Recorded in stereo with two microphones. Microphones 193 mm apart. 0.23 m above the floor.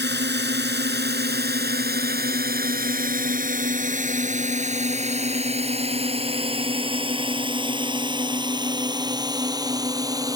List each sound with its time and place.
0.0 s a drone: 65° right (ahead or behind); by 10.4 s 20° right (ahead or behind)